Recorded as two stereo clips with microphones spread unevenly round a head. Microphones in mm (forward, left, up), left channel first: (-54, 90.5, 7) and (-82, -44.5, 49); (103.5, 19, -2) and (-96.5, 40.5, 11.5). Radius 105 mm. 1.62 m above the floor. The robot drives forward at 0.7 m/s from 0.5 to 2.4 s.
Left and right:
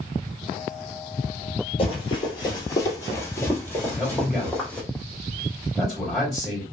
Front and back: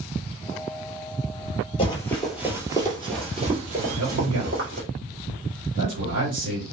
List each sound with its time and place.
1.8 s running footsteps: 25° left, 1.7 m; by 4.8 s 170° left, 3 m
3.8 s a man speaking: 170° left, 2.5 m